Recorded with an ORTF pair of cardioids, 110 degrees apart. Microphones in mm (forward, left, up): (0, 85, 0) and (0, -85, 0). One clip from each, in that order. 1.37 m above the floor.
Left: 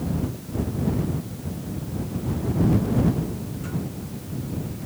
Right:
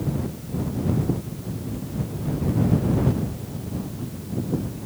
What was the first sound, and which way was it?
Only background noise.